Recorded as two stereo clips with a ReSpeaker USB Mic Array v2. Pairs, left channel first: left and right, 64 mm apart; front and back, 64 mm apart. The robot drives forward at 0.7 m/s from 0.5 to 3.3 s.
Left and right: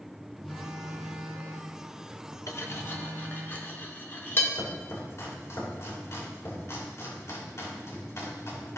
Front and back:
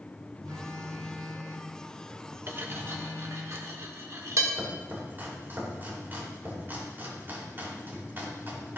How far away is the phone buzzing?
About 6 m.